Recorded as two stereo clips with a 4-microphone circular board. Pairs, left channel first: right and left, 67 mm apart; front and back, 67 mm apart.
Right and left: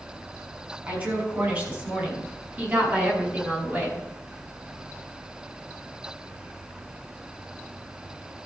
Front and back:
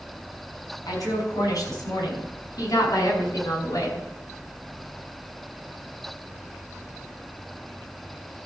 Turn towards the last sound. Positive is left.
turn(degrees=30)